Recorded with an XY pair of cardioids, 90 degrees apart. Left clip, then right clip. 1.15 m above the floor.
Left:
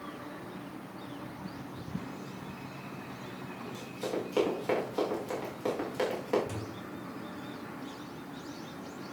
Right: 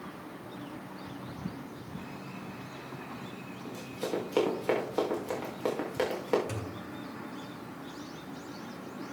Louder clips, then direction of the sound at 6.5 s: Right 1 dB; 55° right.